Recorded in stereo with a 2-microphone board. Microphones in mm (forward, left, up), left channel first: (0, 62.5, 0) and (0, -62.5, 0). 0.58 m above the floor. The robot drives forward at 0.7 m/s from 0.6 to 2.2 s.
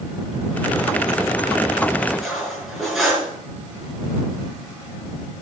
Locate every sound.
2.1 s cutlery clinking: centre (ahead or behind), 5 m